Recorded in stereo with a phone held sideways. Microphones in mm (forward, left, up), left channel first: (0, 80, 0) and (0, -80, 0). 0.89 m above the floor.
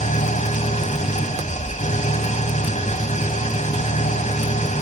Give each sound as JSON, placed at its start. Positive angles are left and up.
{"t": 0.0, "sound": "an engine running", "side_deg": 50, "distance_m": 1.8}